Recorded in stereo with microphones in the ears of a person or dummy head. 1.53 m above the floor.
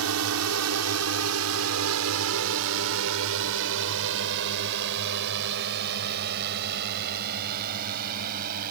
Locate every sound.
0.0 s a drone: 75° right (ahead or behind); by 8.7 s 45° right (ahead or behind)